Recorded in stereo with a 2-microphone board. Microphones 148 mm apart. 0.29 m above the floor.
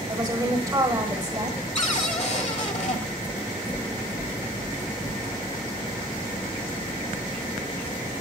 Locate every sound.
0.1 s a woman speaking: 25° right (ahead or behind), 1.1 m
1.8 s a cupboard door: 50° left (ahead or behind), 1.2 m
3.2 s knocking: 45° left (ahead or behind), 5 m